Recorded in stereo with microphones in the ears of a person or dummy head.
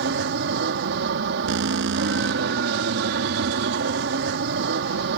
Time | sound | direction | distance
0.0 | an aircraft | 60° right (ahead or behind) | ?
1.5 | an alarm | 70° right (ahead or behind) | ?